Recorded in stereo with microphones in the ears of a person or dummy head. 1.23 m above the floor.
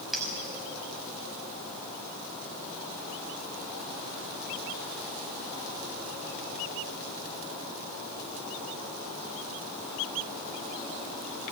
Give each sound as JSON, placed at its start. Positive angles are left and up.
{"t": 0.1, "sound": "a clink", "side_deg": -5, "distance_m": 4.5}